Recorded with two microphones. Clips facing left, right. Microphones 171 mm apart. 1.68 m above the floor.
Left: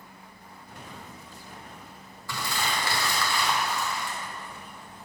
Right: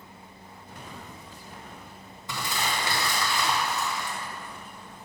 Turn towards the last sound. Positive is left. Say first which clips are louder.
# even
turn(degrees=-20)  # may be behind; listen again after turning